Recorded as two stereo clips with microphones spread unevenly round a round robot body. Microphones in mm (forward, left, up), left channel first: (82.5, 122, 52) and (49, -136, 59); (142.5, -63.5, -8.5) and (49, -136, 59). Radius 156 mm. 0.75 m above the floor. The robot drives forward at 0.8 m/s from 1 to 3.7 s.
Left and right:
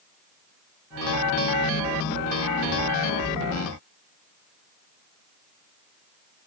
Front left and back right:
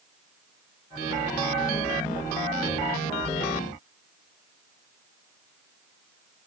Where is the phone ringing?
No phone ringing in this recording.